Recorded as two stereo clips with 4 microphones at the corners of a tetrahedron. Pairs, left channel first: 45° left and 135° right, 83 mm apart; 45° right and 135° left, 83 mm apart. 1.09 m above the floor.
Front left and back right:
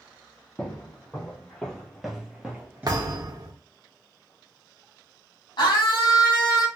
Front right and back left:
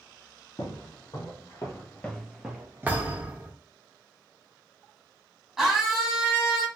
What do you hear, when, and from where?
0.6 s footsteps: 25° right, 2 m; by 3.1 s 165° left, 1.3 m
2.9 s a thud: 160° right, 1.0 m
5.6 s a scream: 50° left, 2 m